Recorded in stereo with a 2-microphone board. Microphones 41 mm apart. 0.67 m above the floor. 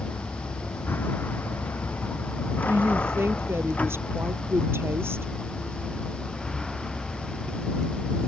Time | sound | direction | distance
0.0 | a vehicle | 65° left (ahead or behind) | ?
2.7 | a woman speaking | 80° right | ?